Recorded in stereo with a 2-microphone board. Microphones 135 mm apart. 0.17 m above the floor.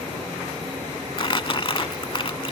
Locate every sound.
1.2 s crumpling: 40° left (ahead or behind)